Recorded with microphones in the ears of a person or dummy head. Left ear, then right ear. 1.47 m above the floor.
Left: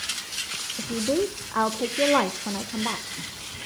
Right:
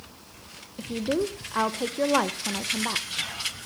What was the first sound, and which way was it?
A woman speaking, 5° right (ahead or behind).